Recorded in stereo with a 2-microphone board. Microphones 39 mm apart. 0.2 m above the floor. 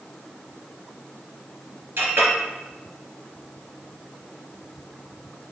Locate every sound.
2.0 s a clink: 65° right (ahead or behind), 2.5 m